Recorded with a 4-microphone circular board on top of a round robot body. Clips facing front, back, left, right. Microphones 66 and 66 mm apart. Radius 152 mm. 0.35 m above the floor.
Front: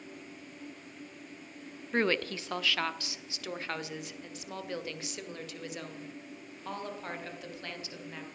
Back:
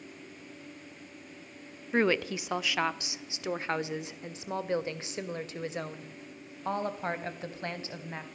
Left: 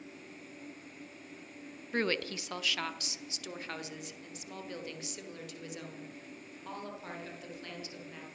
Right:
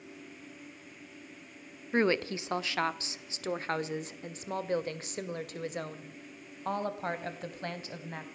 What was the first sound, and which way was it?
A woman speaking, 105° right.